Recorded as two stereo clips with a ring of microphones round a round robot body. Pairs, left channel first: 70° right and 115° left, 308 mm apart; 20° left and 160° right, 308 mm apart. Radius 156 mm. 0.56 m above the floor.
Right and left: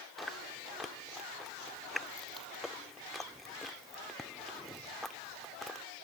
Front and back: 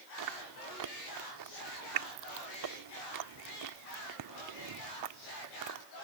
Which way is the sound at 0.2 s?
155° right.